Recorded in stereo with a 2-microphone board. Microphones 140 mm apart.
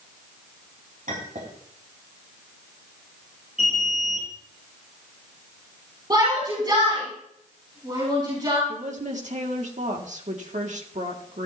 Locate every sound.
1.1 s a clink: 75° right (ahead or behind), 4.5 m
3.6 s an alarm: 70° right (ahead or behind), 9.5 m
6.1 s a shout: 30° right (ahead or behind), 6 m
8.7 s a woman speaking: 60° right (ahead or behind), 1.9 m